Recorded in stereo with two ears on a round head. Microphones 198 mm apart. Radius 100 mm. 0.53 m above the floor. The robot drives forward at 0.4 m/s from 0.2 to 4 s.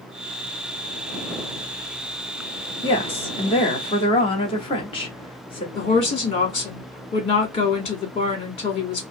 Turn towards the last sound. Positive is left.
turn(degrees=25)  # may be behind; listen again after turning